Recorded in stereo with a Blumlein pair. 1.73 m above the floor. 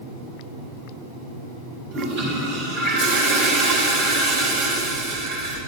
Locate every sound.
1.9 s a toilet flushing: 45° right, 1.9 m